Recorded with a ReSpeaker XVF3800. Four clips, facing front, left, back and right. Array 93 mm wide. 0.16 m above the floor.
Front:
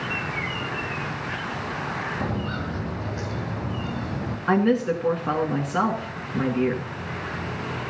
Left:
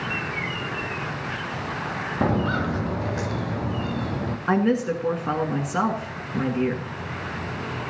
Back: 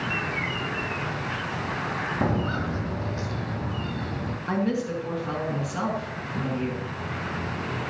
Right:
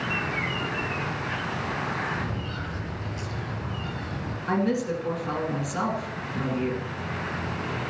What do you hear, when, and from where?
2.2 s footsteps: 110° left, 1.0 m; by 4.4 s 75° left, 2.5 m
4.5 s a woman speaking: 40° left, 2 m